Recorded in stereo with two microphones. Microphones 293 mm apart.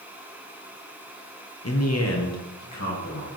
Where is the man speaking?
50° left (ahead or behind), 0.9 m; by 3.3 s 65° left (ahead or behind), 2.5 m.